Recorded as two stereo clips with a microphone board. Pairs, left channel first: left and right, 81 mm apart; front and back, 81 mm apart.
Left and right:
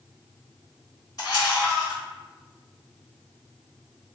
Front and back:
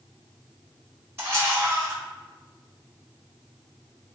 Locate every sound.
1.2 s a camera shutter: 125° left, 1.8 m